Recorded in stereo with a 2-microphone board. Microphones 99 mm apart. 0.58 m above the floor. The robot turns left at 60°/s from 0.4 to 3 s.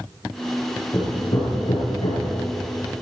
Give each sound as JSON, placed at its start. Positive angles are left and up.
{"t": 0.9, "sound": "hammering", "side_deg": 30, "distance_m": 9.5}